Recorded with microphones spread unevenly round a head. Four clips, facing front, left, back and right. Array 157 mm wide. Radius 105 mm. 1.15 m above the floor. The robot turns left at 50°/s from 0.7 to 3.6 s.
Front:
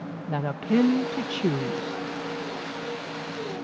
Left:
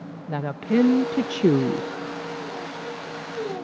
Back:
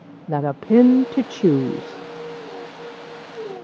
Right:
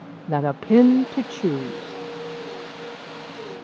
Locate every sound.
0.3 s a woman speaking: 150° right; by 2.0 s 145° left